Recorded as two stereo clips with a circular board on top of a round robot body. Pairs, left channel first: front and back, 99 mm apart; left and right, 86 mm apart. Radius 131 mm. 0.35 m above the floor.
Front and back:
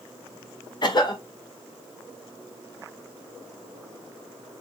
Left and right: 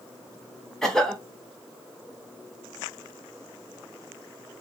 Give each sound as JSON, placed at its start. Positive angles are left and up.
{"t": 0.8, "sound": "a cough", "azimuth_deg": 5, "distance_m": 1.0}